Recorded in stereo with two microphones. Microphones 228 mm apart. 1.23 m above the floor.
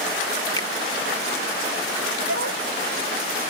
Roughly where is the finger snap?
Centre.